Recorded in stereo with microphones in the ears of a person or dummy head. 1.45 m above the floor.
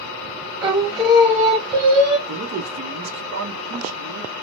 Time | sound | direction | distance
0.6 | singing | 20° right (ahead or behind) | 1.1 m
2.3 | a man speaking | 75° right (ahead or behind) | 0.8 m